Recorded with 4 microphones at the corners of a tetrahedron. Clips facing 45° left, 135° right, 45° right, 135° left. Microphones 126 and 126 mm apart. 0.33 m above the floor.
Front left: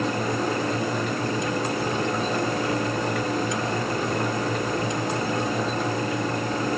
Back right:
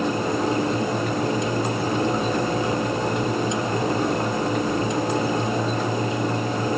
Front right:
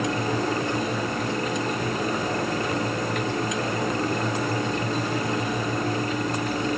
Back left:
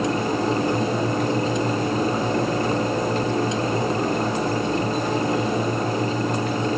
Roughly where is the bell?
No bell in this recording.